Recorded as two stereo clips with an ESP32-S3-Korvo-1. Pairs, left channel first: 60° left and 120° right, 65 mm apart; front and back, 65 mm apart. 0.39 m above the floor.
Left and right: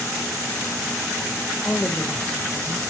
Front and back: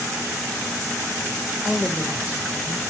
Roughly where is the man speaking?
Left.